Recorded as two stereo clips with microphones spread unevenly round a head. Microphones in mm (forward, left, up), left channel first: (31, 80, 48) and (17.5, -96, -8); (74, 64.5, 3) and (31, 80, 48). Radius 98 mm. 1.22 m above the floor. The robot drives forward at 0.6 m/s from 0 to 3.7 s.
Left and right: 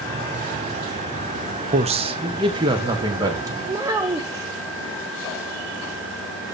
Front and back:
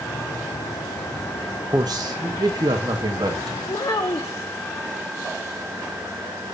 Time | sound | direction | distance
1.7 | a man speaking | 150° right | 1.0 m
3.7 | a child speaking | 20° right | 0.8 m